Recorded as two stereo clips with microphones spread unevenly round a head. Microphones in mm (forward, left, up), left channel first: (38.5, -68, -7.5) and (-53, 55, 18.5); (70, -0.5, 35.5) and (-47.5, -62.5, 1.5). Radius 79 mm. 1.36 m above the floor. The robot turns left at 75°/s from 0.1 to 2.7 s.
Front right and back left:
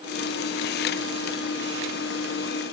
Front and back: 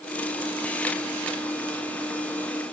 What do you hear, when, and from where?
Only background noise.